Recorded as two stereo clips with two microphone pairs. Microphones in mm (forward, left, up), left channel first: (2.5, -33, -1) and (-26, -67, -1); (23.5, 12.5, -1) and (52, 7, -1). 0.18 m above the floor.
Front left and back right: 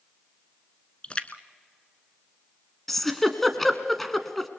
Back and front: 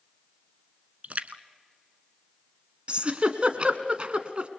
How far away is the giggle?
About 1.4 m.